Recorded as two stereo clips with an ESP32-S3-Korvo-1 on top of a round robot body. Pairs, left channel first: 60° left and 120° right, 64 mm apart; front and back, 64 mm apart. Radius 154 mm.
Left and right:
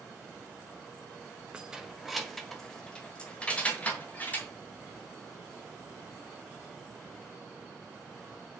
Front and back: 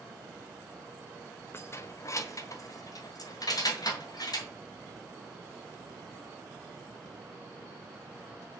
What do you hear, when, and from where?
1.5 s keys jangling: 45° right, 1.2 m; by 4.5 s 5° right, 2.5 m